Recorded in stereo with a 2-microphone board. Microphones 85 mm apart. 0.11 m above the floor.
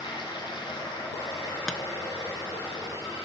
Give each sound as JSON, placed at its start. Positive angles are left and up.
{"t": 0.0, "sound": "running water", "side_deg": 70, "distance_m": 3.5}
{"t": 1.7, "sound": "tapping", "side_deg": 10, "distance_m": 0.8}